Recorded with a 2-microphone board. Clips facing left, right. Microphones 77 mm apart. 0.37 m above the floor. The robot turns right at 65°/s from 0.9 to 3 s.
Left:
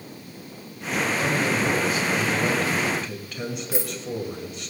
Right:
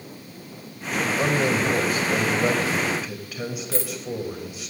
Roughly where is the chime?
I don't hear a chime.